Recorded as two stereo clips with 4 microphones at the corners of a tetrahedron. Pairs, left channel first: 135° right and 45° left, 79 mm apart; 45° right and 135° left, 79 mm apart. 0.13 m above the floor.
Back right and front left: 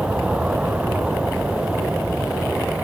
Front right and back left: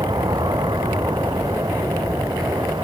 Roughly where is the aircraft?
Behind left.